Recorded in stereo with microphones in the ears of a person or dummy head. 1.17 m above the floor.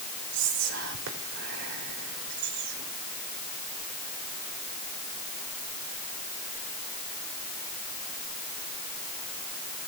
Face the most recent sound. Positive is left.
turn(degrees=-65)  # may be behind; listen again after turning